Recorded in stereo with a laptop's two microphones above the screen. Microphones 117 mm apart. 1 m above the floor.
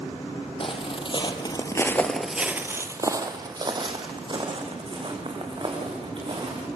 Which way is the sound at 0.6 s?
45° left (ahead or behind).